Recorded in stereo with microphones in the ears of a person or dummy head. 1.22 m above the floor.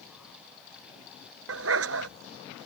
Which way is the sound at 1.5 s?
80° right.